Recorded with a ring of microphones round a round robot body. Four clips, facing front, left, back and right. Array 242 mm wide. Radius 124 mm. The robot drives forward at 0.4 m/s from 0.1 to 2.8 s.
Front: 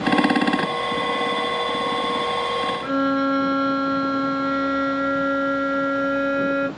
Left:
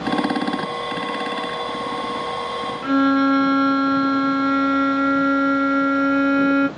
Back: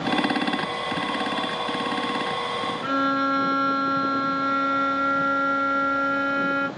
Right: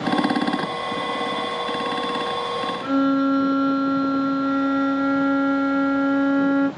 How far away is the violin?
About 2.5 m.